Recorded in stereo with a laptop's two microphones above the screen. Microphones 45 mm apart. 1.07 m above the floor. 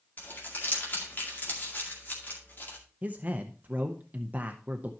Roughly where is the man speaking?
Right.